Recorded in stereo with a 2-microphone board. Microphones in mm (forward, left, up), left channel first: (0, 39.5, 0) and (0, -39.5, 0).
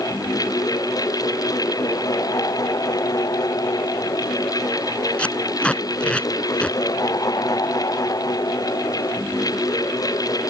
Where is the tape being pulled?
15° left (ahead or behind).